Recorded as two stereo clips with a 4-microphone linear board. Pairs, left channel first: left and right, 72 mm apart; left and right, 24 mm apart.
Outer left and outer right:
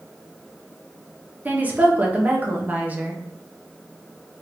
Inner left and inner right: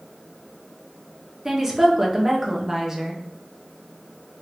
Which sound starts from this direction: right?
A woman speaking, at 1.4 s.